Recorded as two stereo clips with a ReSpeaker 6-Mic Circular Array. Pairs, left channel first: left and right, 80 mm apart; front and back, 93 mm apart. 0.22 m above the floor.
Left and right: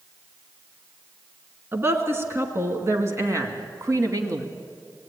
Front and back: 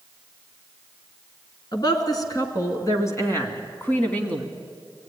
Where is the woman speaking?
35° right, 3 m; by 4.5 s 70° right, 2 m.